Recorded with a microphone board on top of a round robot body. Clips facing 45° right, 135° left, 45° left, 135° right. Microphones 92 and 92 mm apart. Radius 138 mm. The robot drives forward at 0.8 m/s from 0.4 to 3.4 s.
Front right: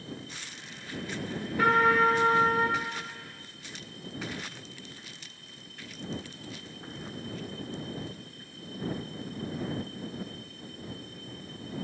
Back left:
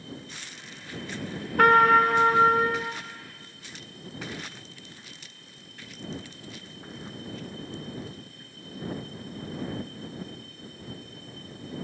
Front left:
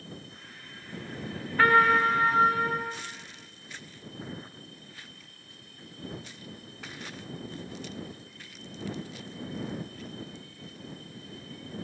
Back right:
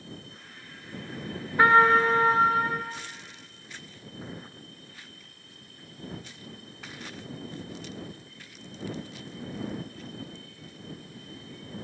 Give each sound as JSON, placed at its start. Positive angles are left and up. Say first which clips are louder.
{"t": 1.6, "sound": "a trumpet", "louder": "back left 5 dB, back right 2 dB", "azimuth_deg": 155, "distance_m": 0.6}